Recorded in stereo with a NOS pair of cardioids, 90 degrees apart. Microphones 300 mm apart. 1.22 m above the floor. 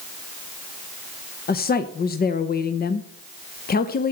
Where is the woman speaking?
30° left, 0.7 m.